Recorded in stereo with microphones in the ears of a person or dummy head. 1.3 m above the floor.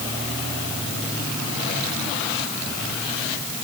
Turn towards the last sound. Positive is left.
No sound to turn to.